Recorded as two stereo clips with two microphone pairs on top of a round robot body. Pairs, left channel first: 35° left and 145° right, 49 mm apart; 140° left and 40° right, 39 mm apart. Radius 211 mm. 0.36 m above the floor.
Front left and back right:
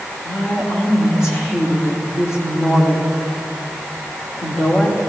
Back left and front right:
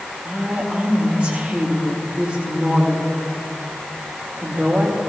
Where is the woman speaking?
20° left, 2 m.